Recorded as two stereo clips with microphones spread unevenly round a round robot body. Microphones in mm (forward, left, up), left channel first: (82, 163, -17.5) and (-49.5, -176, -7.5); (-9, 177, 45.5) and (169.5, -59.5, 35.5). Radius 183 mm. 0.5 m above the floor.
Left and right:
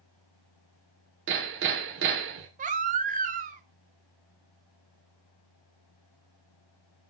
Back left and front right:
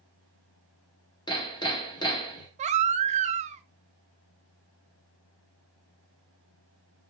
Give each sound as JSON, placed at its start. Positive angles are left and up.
{"t": 1.3, "sound": "hammering", "azimuth_deg": -160, "distance_m": 1.1}
{"t": 2.6, "sound": "a baby crying", "azimuth_deg": -70, "distance_m": 0.6}